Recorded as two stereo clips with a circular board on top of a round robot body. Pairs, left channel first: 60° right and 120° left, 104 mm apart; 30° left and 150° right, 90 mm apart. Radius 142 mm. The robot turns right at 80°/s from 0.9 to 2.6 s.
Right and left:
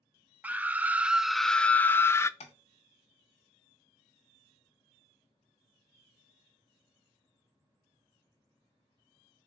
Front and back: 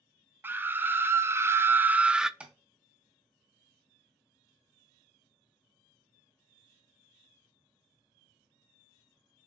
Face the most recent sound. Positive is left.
turn(degrees=-60)